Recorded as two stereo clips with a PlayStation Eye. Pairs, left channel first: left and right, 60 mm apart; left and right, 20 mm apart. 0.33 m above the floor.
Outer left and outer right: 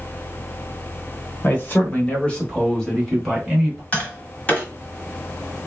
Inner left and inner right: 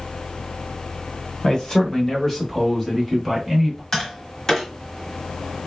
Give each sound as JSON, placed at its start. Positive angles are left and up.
{"t": 1.4, "sound": "a man speaking", "side_deg": 35, "distance_m": 1.2}
{"t": 3.9, "sound": "tapping", "side_deg": 25, "distance_m": 1.2}